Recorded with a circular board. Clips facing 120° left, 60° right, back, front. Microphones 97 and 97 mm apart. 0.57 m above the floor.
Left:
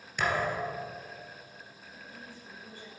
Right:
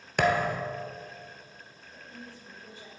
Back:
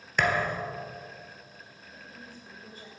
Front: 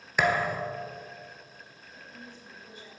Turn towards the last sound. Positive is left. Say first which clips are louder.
# right 2 dB, even
turn(degrees=-130)